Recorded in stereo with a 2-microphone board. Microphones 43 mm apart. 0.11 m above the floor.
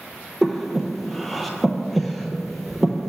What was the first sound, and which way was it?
Breathing, 5° left (ahead or behind).